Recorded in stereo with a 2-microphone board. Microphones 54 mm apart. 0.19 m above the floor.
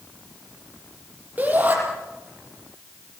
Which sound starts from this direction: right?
A shout, at 1.4 s.